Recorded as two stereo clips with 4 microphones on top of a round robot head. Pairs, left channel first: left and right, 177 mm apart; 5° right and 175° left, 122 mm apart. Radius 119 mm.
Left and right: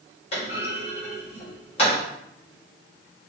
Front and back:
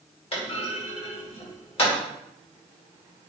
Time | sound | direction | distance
0.3 | a clunk | 30° left | 2.5 m